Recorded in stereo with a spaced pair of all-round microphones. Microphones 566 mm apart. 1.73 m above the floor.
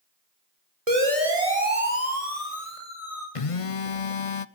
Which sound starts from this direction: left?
A phone buzzing, at 3.4 s.